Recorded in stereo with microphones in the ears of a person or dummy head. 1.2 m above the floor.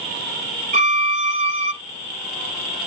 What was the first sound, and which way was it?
A violin, 35° right (ahead or behind).